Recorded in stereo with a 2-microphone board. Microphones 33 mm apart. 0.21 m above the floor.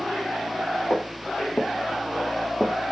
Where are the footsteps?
80° left, 1.3 m; by 2.7 s 25° left (ahead or behind), 0.7 m.